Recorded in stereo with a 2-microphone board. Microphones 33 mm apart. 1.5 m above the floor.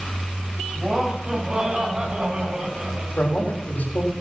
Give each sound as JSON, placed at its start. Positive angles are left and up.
{"t": 0.8, "sound": "laughter", "side_deg": -30, "distance_m": 8.5}
{"t": 3.2, "sound": "a man speaking", "side_deg": 80, "distance_m": 4.0}